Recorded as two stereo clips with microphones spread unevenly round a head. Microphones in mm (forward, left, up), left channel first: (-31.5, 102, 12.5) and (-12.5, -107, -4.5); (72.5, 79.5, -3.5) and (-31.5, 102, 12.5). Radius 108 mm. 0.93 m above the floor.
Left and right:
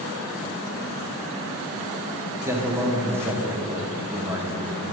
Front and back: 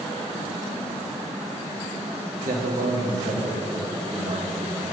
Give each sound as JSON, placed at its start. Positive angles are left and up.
{"t": 2.5, "sound": "a man speaking", "azimuth_deg": -160, "distance_m": 1.7}